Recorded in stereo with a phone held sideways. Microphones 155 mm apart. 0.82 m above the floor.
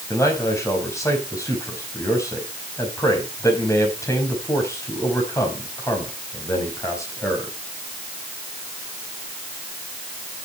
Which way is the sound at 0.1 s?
20° left (ahead or behind).